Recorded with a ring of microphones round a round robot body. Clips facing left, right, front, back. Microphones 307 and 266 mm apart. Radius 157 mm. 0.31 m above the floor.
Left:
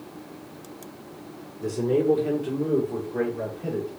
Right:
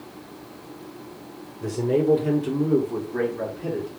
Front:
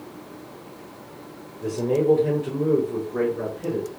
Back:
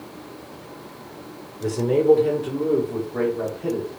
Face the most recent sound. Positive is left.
turn(degrees=-50)